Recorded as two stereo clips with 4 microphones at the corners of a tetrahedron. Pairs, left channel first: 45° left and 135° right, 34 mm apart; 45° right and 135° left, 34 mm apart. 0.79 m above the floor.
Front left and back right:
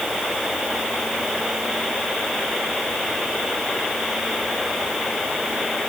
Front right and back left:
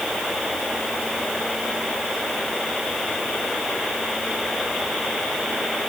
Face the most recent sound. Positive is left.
No sound to turn to.